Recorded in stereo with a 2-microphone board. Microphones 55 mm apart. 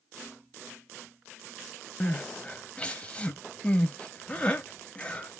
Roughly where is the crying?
Left.